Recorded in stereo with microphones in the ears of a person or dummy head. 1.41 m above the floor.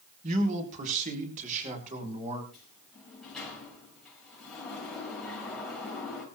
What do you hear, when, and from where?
0.2 s a man speaking: 40° right (ahead or behind), 3.5 m
2.5 s a sliding door: centre (ahead or behind), 5.5 m